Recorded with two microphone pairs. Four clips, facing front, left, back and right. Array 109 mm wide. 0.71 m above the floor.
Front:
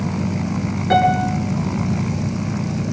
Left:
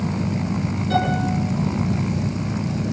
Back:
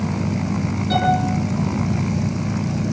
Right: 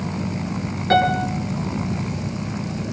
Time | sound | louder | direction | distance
0.9 | a piano | right 5 dB, front 4 dB | 60° right | 9.5 m